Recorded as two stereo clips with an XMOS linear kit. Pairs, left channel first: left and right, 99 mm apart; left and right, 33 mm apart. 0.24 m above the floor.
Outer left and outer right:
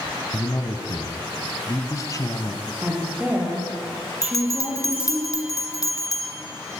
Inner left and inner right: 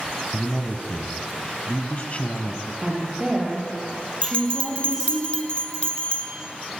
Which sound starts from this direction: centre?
A woman speaking, at 2.8 s.